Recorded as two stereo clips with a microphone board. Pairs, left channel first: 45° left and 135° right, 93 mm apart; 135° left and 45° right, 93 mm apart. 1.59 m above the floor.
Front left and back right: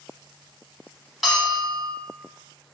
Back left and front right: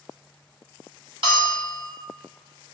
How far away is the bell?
About 3.5 m.